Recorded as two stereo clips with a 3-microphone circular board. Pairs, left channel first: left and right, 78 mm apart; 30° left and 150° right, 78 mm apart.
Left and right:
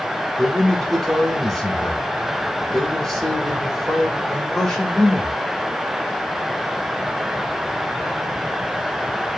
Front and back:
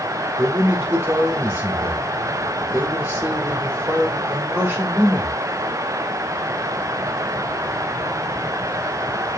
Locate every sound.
0.4 s a man speaking: 170° left, 1.3 m